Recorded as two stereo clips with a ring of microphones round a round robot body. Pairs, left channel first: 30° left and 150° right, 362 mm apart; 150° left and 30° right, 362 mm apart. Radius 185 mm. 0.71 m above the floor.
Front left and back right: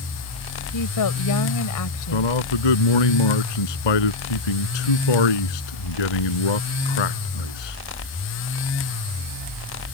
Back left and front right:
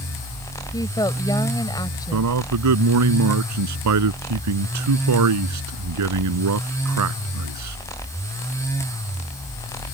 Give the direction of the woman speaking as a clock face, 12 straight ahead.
10 o'clock.